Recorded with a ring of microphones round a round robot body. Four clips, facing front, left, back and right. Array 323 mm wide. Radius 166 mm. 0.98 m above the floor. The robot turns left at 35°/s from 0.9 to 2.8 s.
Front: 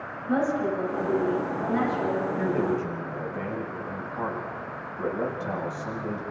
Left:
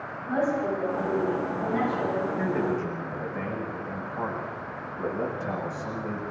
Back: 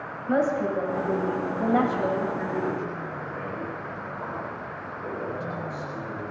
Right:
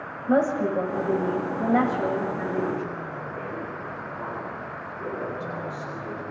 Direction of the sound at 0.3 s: 100° right.